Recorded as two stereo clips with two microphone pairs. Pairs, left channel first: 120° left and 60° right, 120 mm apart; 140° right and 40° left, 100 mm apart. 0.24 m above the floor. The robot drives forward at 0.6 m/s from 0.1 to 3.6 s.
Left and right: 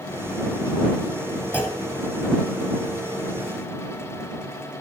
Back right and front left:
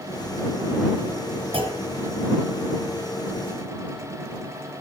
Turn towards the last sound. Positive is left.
turn(degrees=45)